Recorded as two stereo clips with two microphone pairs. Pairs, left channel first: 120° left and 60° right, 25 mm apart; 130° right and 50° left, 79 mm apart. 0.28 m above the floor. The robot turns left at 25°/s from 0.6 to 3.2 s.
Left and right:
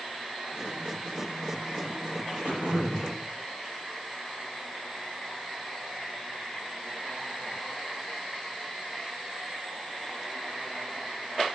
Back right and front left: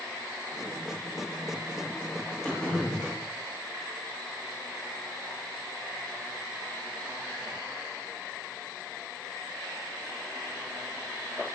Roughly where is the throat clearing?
Ahead right.